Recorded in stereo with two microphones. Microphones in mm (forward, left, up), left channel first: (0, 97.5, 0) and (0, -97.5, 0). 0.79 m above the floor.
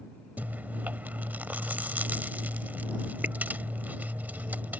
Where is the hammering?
No hammering in this recording.